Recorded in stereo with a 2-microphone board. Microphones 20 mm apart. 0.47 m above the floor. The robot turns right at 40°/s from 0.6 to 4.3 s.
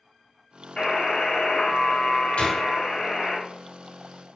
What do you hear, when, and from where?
0.8 s a buzzer: 55° left, 1.7 m; by 3.4 s 160° left, 1.7 m
2.4 s a gunshot: 75° left (ahead or behind), 2 m; by 2.7 s 65° left (ahead or behind), 2 m